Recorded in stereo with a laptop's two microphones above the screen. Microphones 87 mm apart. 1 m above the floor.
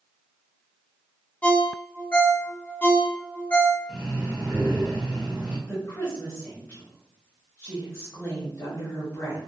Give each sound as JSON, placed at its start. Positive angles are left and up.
{"t": 1.4, "sound": "a ringtone", "side_deg": 15, "distance_m": 0.5}
{"t": 3.9, "sound": "breathing", "side_deg": -15, "distance_m": 1.2}
{"t": 5.7, "sound": "a woman speaking", "side_deg": 30, "distance_m": 0.8}